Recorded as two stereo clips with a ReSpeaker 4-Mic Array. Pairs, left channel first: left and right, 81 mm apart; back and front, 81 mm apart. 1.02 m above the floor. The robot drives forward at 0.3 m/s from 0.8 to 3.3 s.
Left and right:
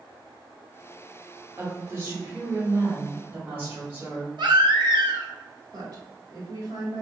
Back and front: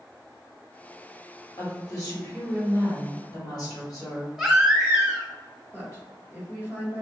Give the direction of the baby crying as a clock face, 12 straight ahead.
3 o'clock.